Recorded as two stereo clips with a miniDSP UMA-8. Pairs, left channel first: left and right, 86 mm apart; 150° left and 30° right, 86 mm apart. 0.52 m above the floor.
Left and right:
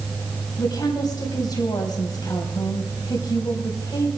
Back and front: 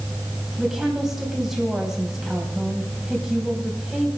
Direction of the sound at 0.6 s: 55° left.